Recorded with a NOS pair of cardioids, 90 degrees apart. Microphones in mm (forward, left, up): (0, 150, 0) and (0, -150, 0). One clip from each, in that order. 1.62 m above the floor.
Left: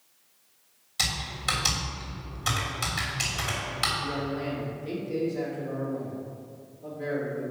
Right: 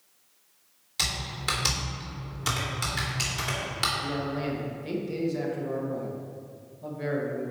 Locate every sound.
1.0 s typing on a keyboard: 20° right, 2.5 m
4.0 s a man speaking: 65° right, 2 m